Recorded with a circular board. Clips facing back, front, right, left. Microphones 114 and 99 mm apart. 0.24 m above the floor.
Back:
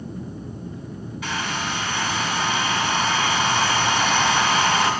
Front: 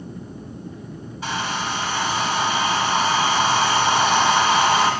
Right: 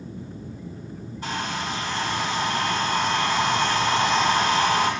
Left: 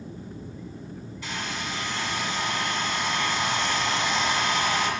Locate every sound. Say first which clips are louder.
1.2 s a hair dryer: front 2 dB, right 5 dB; 50° right, 2.5 m